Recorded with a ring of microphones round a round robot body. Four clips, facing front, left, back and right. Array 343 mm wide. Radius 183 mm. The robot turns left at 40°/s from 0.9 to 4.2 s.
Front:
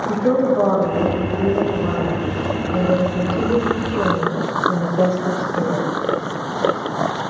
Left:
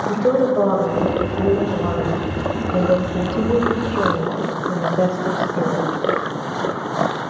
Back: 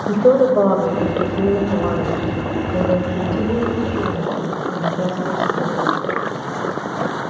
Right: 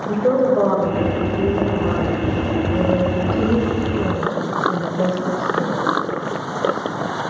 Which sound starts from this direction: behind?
A woman speaking, at 0.1 s.